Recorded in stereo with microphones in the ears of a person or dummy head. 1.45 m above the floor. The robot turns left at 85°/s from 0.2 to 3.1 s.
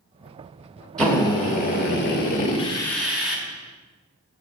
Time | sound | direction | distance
1.0 | a drill | 175° left | 1.3 m